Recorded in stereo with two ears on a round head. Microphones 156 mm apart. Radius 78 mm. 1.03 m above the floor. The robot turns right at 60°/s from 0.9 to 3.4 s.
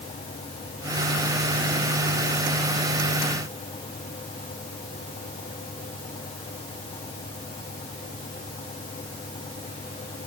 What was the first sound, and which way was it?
Only background noise.